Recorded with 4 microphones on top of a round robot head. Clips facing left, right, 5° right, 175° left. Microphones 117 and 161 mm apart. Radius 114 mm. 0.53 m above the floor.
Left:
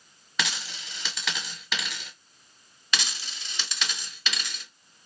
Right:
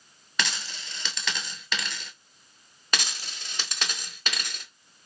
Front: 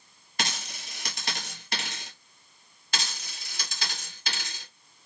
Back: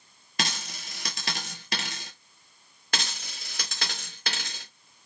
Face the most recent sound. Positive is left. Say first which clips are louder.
# even, back 2 dB
turn(degrees=-135)